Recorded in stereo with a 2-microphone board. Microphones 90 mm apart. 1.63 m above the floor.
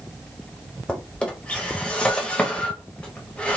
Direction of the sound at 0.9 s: 10° left (ahead or behind).